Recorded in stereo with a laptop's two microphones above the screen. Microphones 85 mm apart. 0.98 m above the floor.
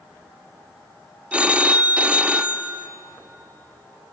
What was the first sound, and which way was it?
A phone ringing, 15° right (ahead or behind).